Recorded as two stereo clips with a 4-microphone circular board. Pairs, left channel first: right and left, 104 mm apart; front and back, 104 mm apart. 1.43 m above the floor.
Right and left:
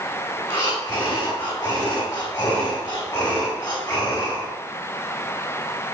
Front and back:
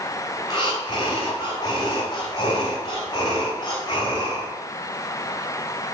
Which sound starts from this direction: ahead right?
Breathing, at 0.4 s.